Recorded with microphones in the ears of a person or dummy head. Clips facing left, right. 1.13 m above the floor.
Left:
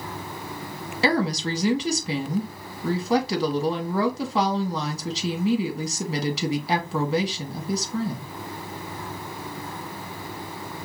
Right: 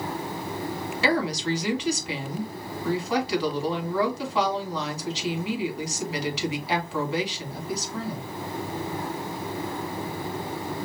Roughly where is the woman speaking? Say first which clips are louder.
Left 2 dB; left.